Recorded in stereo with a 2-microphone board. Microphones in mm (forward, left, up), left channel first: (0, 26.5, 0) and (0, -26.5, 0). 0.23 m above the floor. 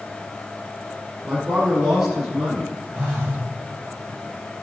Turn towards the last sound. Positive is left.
turn(degrees=-30)  # may be behind; listen again after turning